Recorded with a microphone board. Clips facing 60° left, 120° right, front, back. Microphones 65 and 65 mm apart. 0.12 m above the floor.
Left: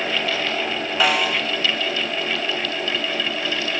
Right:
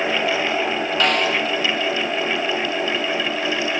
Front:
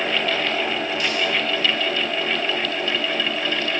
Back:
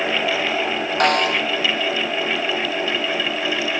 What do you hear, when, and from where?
1.0 s a snare drum: 145° left